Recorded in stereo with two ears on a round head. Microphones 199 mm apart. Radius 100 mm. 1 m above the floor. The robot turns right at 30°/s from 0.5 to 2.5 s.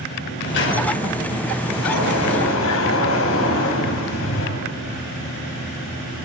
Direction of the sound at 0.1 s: 55° left.